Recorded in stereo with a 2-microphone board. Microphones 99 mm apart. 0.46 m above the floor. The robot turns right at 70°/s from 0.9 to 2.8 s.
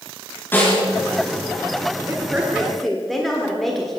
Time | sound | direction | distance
0.5 | a snare drum | 20° left (ahead or behind) | 4 m
2.1 | a woman speaking | 50° right | 1.4 m